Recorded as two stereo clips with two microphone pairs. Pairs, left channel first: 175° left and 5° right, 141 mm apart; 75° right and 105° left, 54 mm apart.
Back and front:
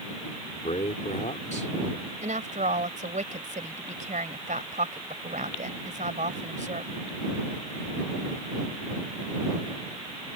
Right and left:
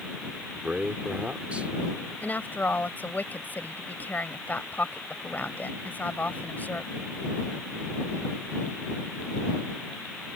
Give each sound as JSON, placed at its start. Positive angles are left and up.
{"t": 0.5, "sound": "a man speaking", "azimuth_deg": 165}
{"t": 2.2, "sound": "a woman speaking", "azimuth_deg": -20}